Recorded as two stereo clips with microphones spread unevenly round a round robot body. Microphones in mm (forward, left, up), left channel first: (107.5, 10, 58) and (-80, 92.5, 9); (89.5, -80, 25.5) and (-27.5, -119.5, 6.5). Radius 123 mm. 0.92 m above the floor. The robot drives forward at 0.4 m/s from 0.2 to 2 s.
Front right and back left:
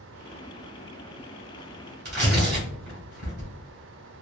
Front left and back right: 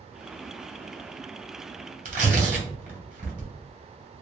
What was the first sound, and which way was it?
Tearing paper, 155° right.